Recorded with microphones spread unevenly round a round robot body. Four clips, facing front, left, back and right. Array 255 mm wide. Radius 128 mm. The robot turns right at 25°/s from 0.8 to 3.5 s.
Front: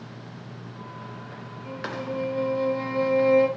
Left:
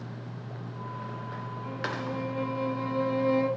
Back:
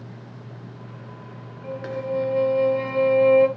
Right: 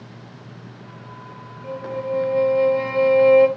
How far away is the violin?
About 2 m.